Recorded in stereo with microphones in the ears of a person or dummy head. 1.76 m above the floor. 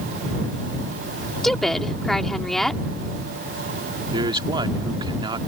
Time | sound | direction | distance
1.4 | a woman speaking | centre (ahead or behind) | ?
4.1 | a man speaking | 20° right (ahead or behind) | ?